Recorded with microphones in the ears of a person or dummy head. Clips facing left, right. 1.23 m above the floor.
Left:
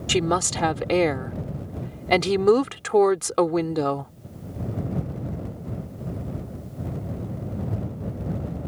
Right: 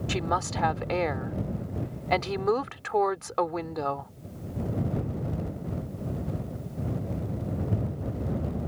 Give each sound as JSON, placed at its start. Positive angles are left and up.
{"t": 0.1, "sound": "a woman speaking", "side_deg": 40}